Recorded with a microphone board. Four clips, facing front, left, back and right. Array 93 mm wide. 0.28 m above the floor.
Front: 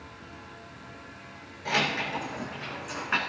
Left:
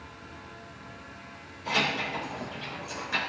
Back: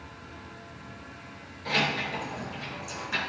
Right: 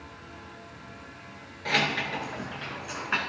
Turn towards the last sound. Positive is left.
turn(degrees=-45)